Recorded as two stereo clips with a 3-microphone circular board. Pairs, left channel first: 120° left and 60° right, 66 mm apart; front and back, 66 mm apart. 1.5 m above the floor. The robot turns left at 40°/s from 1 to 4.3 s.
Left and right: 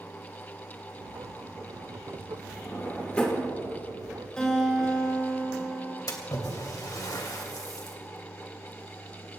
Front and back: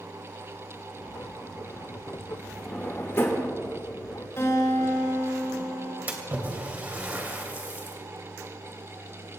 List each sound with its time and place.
2.6 s a drawer: 70° left, 2.5 m; by 3.5 s 35° left, 2.5 m
4.4 s a guitar: 40° left, 6 m
6.1 s a splash: 120° left, 2.5 m